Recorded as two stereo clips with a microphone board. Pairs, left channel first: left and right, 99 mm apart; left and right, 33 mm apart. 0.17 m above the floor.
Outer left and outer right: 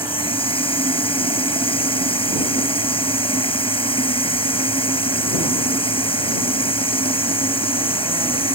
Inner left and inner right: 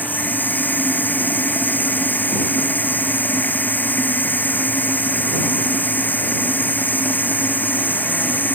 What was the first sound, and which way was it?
Running water, 65° left (ahead or behind).